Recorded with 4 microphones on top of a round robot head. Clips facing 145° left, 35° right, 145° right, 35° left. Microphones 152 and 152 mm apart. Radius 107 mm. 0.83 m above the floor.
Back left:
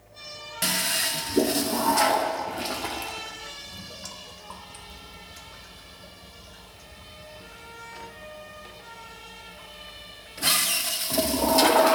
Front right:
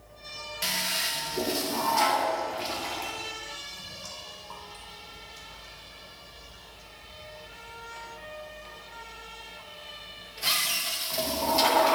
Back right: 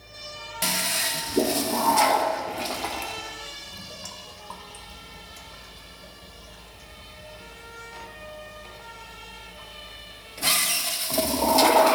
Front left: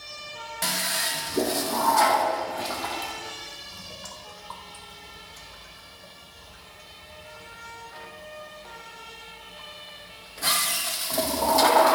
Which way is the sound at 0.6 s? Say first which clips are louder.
Back left 5 dB, back right 2 dB; 145° left.